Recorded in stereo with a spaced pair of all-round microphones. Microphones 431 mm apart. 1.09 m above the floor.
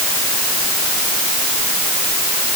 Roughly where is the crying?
No crying in this recording.